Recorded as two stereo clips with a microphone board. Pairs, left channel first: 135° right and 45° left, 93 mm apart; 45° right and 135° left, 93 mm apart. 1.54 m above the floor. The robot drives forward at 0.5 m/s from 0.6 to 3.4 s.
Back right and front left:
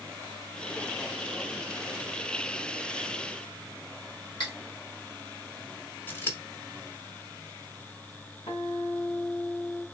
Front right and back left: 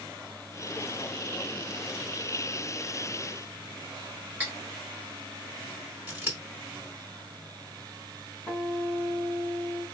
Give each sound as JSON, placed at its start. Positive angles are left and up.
{"t": 4.4, "sound": "cutlery clinking", "azimuth_deg": -155, "distance_m": 2.5}
{"t": 6.1, "sound": "scissors", "azimuth_deg": 180, "distance_m": 1.5}
{"t": 8.5, "sound": "a guitar", "azimuth_deg": -140, "distance_m": 2.0}